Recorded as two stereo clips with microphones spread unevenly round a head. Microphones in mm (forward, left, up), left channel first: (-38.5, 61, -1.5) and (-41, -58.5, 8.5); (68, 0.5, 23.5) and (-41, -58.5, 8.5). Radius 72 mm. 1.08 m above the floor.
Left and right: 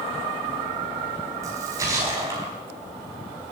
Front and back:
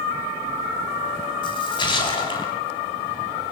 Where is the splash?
20° right, 3.5 m.